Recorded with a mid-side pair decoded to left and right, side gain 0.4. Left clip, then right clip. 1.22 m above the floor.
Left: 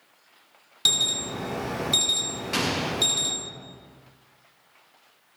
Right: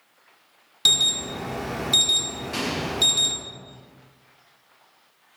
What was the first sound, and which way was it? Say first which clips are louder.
An alarm: right 3 dB; 15° right.